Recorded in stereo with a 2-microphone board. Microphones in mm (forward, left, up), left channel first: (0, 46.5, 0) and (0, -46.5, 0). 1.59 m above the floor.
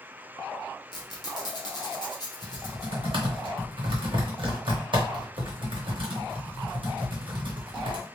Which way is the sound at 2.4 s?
60° right (ahead or behind).